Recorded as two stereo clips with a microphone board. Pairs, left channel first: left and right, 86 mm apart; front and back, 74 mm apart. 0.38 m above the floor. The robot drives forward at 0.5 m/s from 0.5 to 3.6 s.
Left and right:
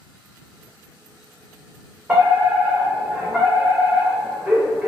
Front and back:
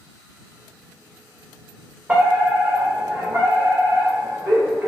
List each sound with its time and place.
2.1 s a fire alarm: 140° right, 2 m; by 4.9 s 160° right, 2.5 m